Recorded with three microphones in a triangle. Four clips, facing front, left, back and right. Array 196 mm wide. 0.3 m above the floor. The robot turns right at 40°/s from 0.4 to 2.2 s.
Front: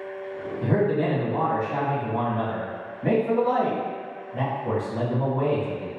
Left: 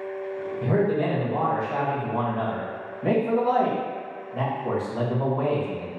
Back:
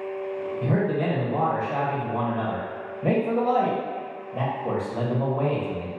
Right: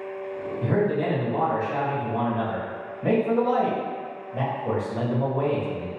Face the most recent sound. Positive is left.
turn(degrees=-170)